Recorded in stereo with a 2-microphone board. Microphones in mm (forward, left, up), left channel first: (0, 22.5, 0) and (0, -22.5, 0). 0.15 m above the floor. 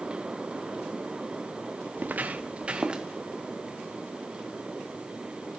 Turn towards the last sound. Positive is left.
turn(degrees=-20)  # may be behind; listen again after turning